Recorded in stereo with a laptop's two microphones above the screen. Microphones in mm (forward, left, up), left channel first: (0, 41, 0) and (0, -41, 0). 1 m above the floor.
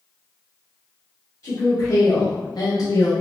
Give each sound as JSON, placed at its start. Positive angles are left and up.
{"t": 1.4, "sound": "a woman speaking", "side_deg": 40, "distance_m": 1.0}